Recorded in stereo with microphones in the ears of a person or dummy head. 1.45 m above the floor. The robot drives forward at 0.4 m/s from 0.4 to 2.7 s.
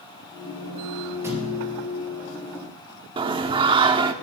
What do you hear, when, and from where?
1.2 s a thud: 10° right (ahead or behind), 3.5 m
3.2 s singing: 25° right (ahead or behind), 0.8 m